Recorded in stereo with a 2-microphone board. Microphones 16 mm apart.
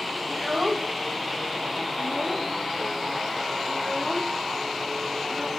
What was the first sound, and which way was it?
A child speaking, 40° right (ahead or behind).